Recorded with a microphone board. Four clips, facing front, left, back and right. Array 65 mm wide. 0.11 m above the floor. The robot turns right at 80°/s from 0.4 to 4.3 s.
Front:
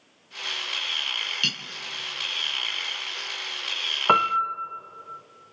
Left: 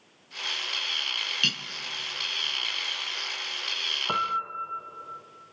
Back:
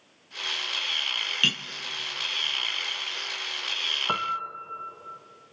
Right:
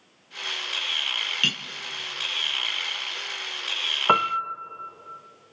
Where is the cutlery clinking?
145° right, 0.8 m; by 1.6 s 130° right, 0.8 m.